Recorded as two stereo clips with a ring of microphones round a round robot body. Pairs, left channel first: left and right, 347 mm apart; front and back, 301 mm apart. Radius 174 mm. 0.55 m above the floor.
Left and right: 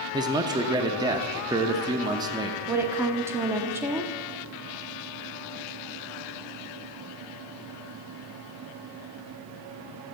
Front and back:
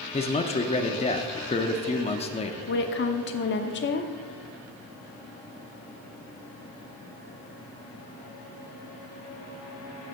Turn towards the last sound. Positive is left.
turn(degrees=-10)